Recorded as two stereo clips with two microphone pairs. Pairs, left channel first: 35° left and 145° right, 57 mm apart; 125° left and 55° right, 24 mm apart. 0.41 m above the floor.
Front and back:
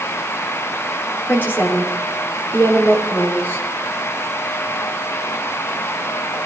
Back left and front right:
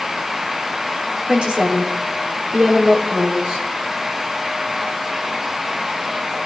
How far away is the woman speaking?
About 5.5 m.